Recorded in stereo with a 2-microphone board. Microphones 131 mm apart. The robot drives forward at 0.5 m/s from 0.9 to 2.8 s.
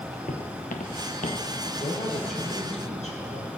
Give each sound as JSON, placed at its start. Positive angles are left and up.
{"t": 0.3, "sound": "footsteps", "side_deg": 75, "distance_m": 1.4}
{"t": 1.8, "sound": "a man speaking", "side_deg": 60, "distance_m": 3.0}